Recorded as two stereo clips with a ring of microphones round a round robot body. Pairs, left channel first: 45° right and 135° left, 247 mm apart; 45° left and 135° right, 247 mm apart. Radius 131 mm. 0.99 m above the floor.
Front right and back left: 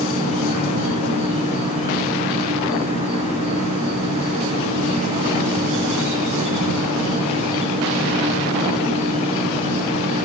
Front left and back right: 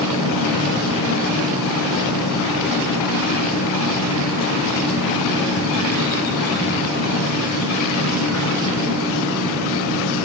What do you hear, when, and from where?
0.0 s an insect: 70° left, 4 m